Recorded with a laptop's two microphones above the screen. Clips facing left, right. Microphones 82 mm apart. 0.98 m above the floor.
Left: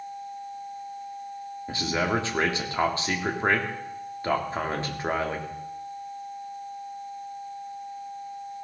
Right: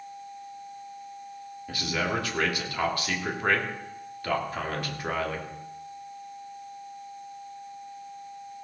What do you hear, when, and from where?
1.7 s a man speaking: 25° left (ahead or behind), 2.5 m